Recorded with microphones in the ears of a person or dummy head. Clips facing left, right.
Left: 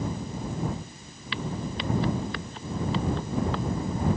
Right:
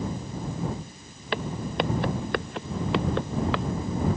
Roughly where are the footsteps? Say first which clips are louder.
Right 4 dB; right.